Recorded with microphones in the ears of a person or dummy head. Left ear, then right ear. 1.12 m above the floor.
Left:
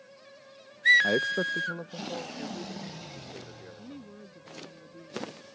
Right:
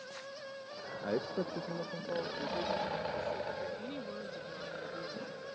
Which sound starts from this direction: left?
A man speaking, at 1.0 s.